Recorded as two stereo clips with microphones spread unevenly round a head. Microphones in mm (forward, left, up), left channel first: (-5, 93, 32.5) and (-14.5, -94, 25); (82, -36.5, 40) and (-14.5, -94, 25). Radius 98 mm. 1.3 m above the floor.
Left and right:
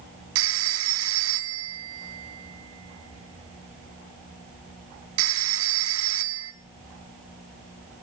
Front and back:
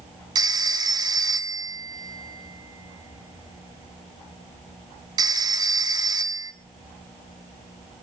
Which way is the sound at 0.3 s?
95° right.